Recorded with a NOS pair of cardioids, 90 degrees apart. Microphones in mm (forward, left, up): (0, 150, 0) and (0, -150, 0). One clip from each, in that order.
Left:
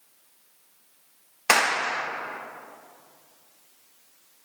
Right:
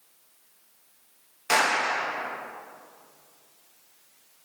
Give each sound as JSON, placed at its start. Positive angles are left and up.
{"t": 1.5, "sound": "a clap", "azimuth_deg": 65, "distance_m": 0.8}